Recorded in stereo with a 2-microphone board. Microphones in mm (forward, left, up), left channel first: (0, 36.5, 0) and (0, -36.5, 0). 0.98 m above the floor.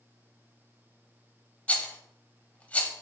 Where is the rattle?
15° left (ahead or behind), 0.6 m.